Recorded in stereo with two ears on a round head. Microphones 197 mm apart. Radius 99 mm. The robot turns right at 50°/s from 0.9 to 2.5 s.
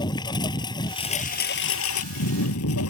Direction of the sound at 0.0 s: 20° left.